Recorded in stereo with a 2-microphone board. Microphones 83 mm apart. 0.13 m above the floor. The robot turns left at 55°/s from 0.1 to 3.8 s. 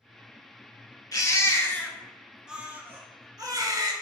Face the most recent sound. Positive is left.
turn(degrees=-85)